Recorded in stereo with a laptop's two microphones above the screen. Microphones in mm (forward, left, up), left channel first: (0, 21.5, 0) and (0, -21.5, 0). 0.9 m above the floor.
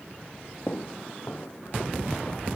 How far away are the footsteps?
About 1.3 m.